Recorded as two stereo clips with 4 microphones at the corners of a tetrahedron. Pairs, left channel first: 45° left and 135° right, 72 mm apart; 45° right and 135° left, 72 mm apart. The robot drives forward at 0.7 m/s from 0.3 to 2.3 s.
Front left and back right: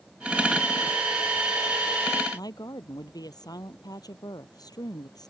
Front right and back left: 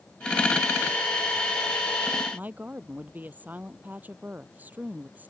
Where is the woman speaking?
70° left.